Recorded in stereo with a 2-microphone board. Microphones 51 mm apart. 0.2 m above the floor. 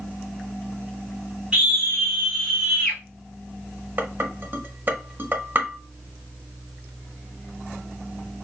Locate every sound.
1.5 s a scream: 15° right (ahead or behind), 1.6 m; by 3.0 s 15° left (ahead or behind), 1.6 m
4.0 s dishes clattering: 40° right (ahead or behind), 1.0 m